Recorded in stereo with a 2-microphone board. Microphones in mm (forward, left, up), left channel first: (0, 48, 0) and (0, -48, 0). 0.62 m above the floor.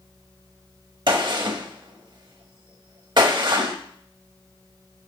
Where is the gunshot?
50° right (ahead or behind), 1.1 m.